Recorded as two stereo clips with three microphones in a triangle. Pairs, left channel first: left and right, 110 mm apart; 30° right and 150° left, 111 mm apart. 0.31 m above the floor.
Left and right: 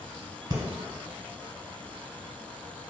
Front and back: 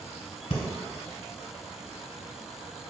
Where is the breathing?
40° right, 1.0 m.